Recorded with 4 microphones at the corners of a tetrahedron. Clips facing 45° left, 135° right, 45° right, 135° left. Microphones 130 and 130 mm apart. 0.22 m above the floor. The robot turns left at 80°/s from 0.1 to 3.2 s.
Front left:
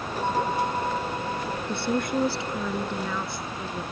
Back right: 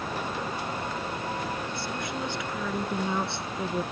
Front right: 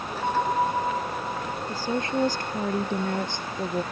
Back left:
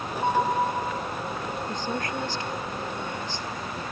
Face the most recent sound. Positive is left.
turn(degrees=-75)